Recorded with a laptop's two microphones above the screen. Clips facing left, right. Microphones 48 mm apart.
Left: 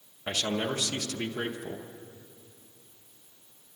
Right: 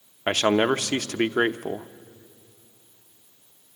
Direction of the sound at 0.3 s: 55° right (ahead or behind).